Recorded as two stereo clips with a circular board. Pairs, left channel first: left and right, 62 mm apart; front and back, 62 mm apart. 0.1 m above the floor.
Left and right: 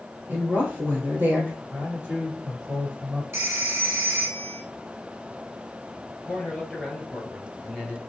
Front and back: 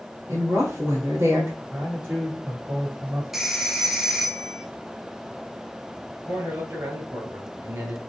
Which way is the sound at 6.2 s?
175° right.